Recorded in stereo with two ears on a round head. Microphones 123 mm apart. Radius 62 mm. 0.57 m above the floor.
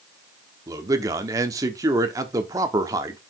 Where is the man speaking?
25° right (ahead or behind), 1.1 m.